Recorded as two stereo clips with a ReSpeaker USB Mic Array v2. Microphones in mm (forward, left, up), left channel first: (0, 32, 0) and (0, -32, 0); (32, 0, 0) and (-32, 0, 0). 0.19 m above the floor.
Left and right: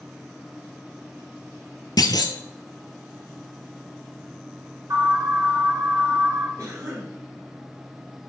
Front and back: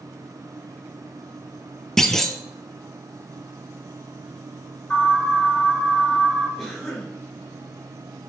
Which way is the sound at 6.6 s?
90° right.